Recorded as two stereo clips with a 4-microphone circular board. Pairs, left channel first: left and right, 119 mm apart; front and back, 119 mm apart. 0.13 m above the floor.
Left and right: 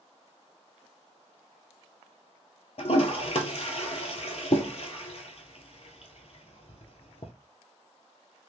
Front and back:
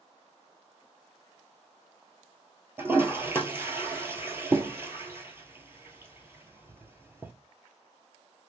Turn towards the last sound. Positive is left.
turn(degrees=110)